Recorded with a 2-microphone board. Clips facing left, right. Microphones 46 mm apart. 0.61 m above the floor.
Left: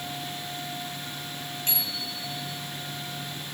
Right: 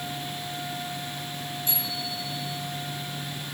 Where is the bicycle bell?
70° left (ahead or behind), 8.5 m.